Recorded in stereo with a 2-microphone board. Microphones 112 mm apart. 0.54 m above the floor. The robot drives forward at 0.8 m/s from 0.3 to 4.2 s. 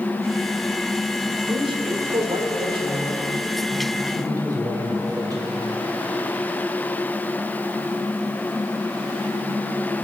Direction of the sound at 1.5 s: 45° right (ahead or behind).